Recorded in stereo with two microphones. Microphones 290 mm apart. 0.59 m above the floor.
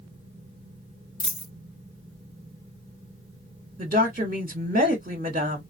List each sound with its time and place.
1.2 s a dropped coin: 80° left, 1.9 m
3.8 s a woman speaking: 30° right (ahead or behind), 1.1 m